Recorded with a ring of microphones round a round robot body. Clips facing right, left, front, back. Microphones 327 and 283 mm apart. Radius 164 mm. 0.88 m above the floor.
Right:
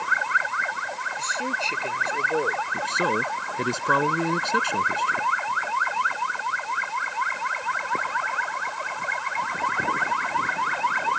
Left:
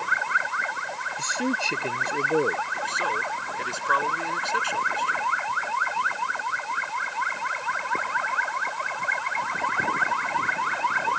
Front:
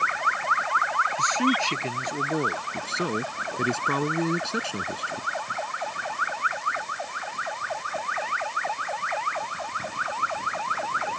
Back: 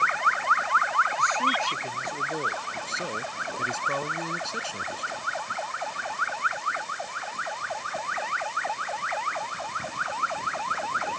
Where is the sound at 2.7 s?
45° right.